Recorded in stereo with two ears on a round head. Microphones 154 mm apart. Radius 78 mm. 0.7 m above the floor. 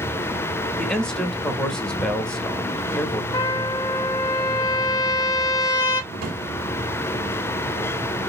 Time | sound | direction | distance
0.8 | a man speaking | 5° left (ahead or behind) | 0.7 m
3.3 | a trumpet | 20° left (ahead or behind) | 0.9 m
6.1 | a drawer | 60° right (ahead or behind) | 1.2 m